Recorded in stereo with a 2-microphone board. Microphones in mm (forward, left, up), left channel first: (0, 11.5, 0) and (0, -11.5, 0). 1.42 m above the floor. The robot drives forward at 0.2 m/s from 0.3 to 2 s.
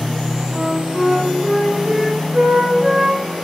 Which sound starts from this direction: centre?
A flute, at 0.5 s.